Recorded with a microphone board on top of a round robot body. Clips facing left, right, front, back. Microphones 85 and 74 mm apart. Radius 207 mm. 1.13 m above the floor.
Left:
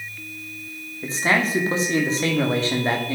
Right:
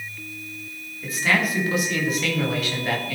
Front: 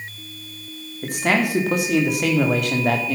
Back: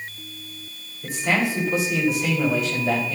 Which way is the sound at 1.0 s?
30° left.